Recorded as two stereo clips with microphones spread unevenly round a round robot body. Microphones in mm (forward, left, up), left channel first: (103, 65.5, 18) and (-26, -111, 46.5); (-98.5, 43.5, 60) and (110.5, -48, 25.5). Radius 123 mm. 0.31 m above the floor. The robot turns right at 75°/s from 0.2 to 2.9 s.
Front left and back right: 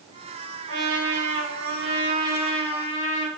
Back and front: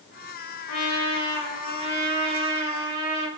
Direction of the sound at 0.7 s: 175° right.